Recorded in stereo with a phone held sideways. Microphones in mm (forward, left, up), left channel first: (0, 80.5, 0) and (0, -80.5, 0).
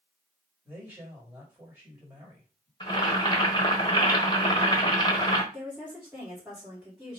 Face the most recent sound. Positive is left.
turn(degrees=-10)  # may be behind; listen again after turning